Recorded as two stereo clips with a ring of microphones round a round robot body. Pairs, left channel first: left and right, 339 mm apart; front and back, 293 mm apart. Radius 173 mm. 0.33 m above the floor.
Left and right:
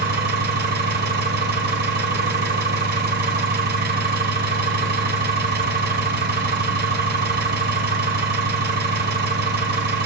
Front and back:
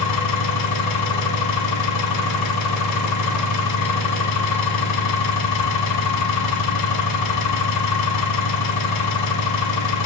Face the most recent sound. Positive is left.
turn(degrees=-30)